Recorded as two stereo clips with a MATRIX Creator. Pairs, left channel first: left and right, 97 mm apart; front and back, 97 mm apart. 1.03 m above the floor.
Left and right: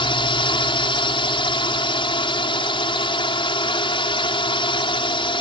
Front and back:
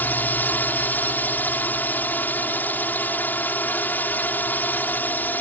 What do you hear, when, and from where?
0.0 s a drone: 70° left